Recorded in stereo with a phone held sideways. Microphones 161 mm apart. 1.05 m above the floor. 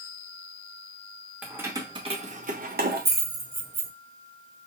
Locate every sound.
1.4 s keys jangling: 10° right (ahead or behind), 0.7 m; by 3.9 s 80° right, 1.1 m